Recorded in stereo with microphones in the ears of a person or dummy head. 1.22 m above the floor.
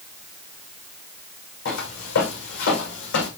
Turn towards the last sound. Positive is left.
turn(degrees=75)  # may be behind; listen again after turning